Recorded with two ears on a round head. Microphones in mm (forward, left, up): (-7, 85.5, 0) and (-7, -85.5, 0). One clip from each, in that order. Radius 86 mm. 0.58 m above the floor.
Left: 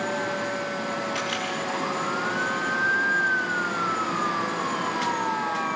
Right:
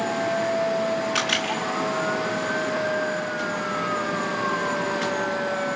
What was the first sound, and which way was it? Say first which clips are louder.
A camera shutter: right 5 dB; 25° right (ahead or behind).